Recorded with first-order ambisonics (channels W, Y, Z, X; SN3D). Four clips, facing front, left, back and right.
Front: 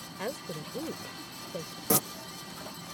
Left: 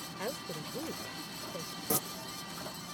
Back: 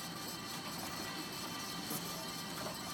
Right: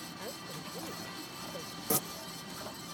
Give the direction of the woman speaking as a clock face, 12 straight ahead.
11 o'clock.